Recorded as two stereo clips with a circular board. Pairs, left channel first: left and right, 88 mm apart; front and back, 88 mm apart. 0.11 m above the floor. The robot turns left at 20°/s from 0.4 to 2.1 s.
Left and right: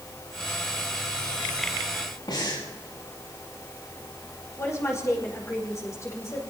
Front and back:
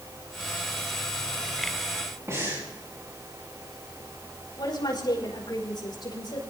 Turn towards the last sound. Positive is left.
turn(degrees=35)